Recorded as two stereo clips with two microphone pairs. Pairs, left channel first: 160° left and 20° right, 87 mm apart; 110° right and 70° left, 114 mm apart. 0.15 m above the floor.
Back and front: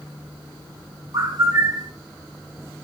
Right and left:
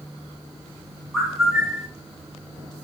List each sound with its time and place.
1.1 s a bird: 20° right, 1.8 m